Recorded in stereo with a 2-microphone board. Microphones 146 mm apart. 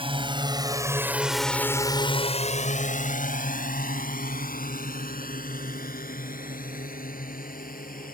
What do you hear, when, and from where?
0.0 s a drone: 40° right (ahead or behind); by 8.2 s 70° left (ahead or behind)